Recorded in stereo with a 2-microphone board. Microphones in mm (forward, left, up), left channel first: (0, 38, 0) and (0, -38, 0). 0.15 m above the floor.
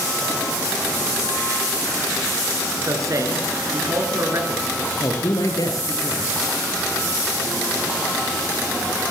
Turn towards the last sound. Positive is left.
turn(degrees=60)  # may be behind; listen again after turning